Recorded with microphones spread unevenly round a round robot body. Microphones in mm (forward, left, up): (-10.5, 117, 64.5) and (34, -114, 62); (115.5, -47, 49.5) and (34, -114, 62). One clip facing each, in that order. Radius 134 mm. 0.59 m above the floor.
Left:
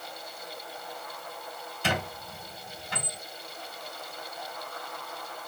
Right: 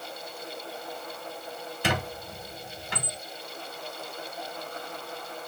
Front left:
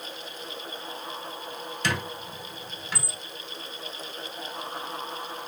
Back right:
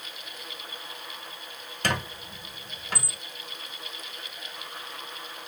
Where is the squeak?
100° right, 1.2 m.